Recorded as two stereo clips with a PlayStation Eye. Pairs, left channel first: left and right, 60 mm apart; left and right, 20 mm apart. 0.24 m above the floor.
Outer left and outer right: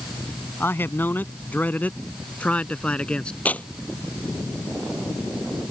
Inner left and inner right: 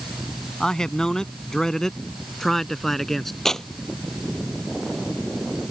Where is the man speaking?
40° left (ahead or behind); by 3.4 s 15° left (ahead or behind).